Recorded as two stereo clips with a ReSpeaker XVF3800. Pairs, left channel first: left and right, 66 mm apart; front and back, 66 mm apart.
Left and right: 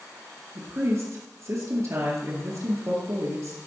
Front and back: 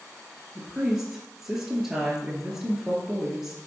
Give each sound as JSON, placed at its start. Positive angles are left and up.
{"t": 0.6, "sound": "a woman speaking", "azimuth_deg": -100, "distance_m": 2.5}